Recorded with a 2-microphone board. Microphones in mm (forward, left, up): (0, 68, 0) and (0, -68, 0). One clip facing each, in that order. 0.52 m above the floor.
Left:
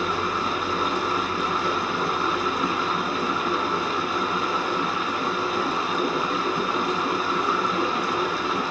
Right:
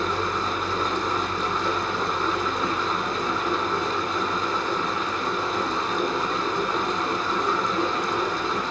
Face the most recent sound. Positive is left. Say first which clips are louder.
# even
turn(degrees=10)  # may be behind; listen again after turning